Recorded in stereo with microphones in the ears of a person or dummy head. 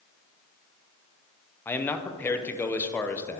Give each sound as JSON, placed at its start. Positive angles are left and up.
{"t": 1.6, "sound": "a man speaking", "side_deg": 10, "distance_m": 0.6}